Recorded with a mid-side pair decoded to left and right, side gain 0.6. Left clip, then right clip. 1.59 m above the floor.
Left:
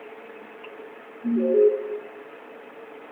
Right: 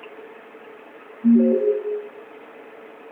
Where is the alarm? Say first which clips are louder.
Right 1 dB; 55° right, 3.5 m.